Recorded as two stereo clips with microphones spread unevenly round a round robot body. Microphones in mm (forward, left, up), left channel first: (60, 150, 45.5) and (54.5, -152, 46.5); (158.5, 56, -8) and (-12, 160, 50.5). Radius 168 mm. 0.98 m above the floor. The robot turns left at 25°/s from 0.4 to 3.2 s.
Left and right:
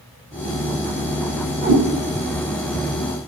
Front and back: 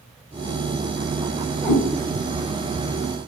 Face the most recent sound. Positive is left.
turn(degrees=175)